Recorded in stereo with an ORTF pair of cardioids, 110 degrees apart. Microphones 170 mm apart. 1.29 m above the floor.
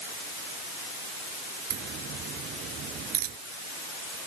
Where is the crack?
60° right.